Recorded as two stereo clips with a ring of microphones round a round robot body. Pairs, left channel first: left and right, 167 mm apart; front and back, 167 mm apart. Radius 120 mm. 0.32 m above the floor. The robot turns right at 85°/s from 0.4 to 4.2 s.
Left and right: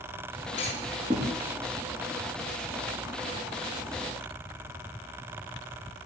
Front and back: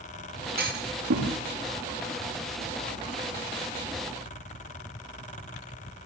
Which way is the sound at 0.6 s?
155° left.